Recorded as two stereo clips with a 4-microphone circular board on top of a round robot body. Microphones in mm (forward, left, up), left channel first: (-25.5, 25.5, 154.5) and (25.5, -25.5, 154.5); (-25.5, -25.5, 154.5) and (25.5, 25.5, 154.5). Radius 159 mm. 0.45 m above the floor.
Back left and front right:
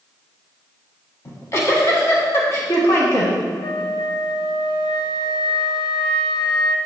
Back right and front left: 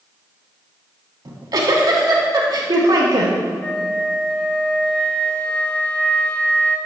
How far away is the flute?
About 0.7 m.